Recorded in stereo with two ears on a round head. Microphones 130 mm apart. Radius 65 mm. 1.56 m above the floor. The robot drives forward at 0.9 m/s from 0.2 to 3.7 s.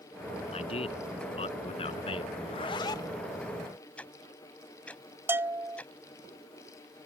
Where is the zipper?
45° left (ahead or behind); by 3.2 s 25° left (ahead or behind).